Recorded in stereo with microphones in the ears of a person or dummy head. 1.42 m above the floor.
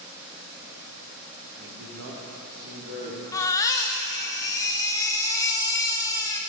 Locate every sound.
1.6 s a man speaking: 50° right (ahead or behind), 1.4 m; by 3.2 s 70° right (ahead or behind), 3 m
3.3 s a baby crying: 20° left (ahead or behind), 0.7 m